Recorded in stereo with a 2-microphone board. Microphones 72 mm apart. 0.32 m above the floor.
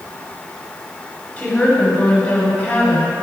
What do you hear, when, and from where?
1.4 s a woman speaking: 20° left (ahead or behind), 1.5 m